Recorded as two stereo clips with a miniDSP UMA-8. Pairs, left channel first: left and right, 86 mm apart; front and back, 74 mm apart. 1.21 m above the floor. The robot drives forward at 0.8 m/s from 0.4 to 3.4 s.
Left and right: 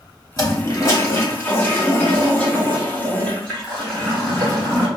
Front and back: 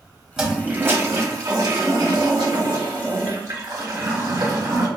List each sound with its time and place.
0.4 s a toilet flushing: 100° left, 0.8 m; by 4.9 s 170° left, 2.5 m